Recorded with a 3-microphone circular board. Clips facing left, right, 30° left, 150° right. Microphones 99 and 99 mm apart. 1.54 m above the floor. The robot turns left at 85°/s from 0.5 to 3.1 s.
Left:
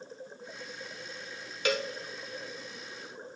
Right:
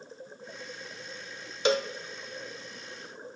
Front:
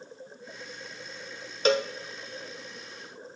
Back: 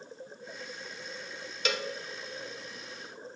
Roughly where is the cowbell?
Ahead right.